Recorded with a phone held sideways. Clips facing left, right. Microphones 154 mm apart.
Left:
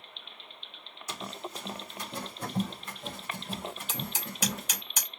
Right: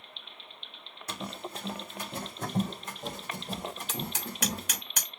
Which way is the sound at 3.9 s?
65° right (ahead or behind).